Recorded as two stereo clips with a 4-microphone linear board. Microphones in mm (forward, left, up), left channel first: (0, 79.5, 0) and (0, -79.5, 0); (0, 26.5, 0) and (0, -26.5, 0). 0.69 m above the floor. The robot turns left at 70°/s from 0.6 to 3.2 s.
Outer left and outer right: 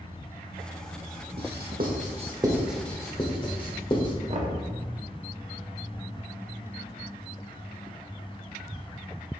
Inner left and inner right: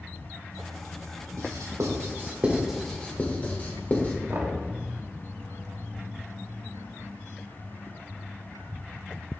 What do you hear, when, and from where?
1.4 s writing: 80° right, 1.1 m; by 4.2 s 30° left (ahead or behind), 1.1 m
4.3 s knocking: 45° right (ahead or behind), 1.0 m